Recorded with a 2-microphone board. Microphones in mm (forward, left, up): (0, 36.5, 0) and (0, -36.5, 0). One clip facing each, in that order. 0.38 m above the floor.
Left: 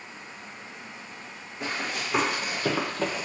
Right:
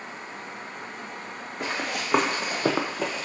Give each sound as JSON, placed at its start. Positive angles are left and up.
{"t": 1.6, "sound": "running footsteps", "side_deg": -70, "distance_m": 1.5}